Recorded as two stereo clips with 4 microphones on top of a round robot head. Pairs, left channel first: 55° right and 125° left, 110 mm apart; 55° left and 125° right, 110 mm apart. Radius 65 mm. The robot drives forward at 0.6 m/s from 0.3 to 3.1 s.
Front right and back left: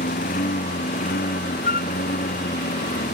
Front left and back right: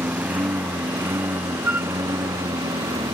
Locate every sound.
0.0 s a lawn mower: 50° right; by 3.1 s 65° right
1.6 s a flute: 50° right